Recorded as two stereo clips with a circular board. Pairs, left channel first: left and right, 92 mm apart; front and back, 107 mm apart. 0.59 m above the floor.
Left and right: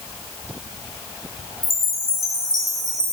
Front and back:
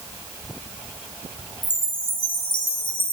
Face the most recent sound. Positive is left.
turn(degrees=-40)